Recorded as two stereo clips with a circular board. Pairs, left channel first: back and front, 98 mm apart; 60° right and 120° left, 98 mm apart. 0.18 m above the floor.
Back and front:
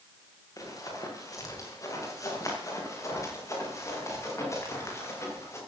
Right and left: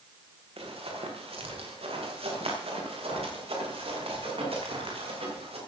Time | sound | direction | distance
0.6 | running footsteps | 125° left | 6 m